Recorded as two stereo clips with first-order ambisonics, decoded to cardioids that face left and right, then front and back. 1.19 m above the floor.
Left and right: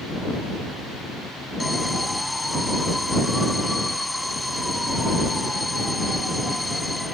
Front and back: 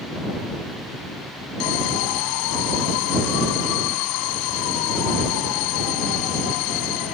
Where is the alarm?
5° left.